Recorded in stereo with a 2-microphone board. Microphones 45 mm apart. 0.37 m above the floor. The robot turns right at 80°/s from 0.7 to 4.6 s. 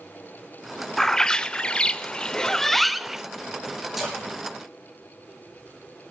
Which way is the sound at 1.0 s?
10° left (ahead or behind).